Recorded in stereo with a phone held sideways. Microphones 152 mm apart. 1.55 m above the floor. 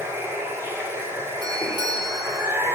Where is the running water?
15° right (ahead or behind), 5.5 m.